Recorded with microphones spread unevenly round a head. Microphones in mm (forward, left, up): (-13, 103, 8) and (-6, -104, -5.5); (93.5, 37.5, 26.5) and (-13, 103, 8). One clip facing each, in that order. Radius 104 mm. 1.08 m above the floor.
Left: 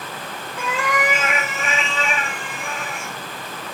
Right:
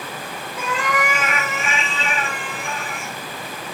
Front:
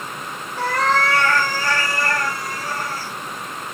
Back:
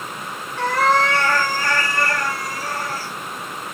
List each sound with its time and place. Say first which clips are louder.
0.6 s a cat meowing: even, back 2 dB; 5° left, 0.5 m; by 3.1 s 135° left, 1.3 m